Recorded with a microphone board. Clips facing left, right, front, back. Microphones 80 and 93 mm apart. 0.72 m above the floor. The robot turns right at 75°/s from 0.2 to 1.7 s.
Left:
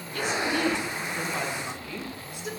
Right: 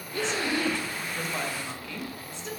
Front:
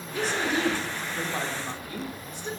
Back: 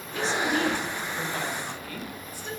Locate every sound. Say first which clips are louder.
0.1 s a woman speaking: left 1 dB, back 1 dB; 85° right, 0.6 m; by 2.5 s 30° left, 0.6 m